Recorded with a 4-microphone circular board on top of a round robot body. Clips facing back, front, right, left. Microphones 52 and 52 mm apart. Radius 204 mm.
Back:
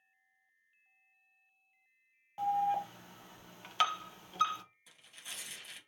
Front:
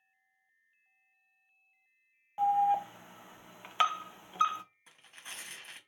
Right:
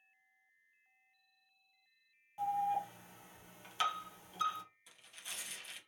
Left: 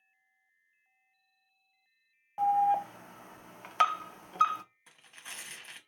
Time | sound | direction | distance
2.4 | an alarm | 65° left | 0.6 m
4.9 | tearing paper | 45° left | 1.0 m